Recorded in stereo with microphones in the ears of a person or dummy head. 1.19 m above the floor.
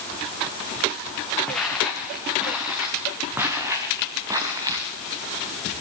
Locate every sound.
1.5 s footsteps: 5° left (ahead or behind), 4.5 m; by 4.9 s 20° right (ahead or behind), 5.5 m